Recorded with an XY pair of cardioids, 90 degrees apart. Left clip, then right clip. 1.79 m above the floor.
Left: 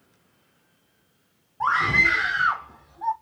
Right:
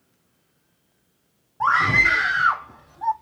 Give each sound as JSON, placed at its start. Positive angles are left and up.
{"t": 1.6, "sound": "a scream", "azimuth_deg": -25, "distance_m": 0.8}